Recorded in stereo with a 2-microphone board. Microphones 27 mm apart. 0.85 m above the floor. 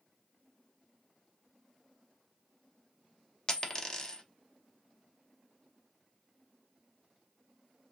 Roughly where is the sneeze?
I don't hear a sneeze.